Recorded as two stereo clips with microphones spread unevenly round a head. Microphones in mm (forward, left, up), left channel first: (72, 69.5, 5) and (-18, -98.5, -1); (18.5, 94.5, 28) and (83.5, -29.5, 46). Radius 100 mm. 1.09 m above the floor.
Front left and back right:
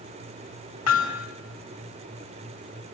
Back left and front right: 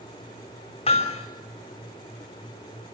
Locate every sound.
0.9 s hammering: 70° left, 5.5 m